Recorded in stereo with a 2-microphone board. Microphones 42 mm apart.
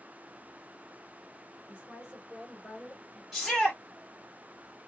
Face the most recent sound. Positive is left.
turn(degrees=0)  # may be behind; listen again after turning